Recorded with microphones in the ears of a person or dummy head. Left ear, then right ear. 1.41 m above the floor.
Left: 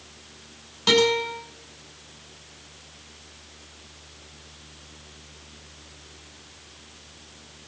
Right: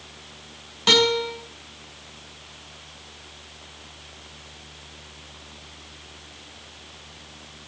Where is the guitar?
15° right (ahead or behind), 7 m.